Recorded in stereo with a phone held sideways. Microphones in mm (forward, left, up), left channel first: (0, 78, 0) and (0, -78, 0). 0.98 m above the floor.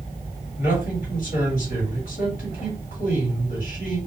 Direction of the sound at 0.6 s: 65° left (ahead or behind).